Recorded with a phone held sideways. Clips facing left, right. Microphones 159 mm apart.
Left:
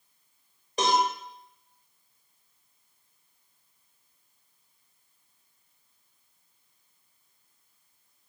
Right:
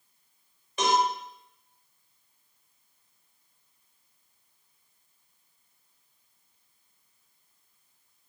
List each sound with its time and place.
0.8 s a cowbell: 35° left (ahead or behind), 1.1 m